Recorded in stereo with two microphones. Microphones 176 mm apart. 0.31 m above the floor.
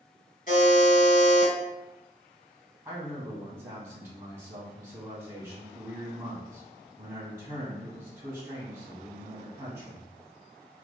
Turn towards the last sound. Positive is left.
turn(degrees=-15)  # may be behind; listen again after turning